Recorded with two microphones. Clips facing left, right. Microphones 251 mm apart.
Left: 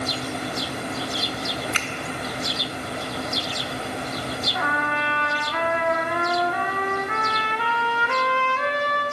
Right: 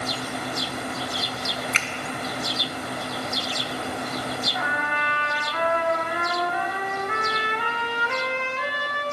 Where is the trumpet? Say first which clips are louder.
Left 3 dB; 65° left (ahead or behind), 0.9 m.